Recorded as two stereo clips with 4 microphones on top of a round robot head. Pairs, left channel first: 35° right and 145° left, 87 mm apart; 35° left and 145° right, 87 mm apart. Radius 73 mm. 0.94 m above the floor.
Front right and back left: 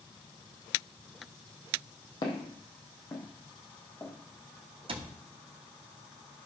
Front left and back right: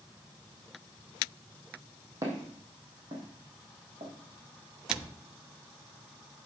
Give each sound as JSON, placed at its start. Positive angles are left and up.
{"t": 2.2, "sound": "footsteps", "azimuth_deg": -85, "distance_m": 2.5}
{"t": 4.9, "sound": "a cupboard door", "azimuth_deg": 135, "distance_m": 1.5}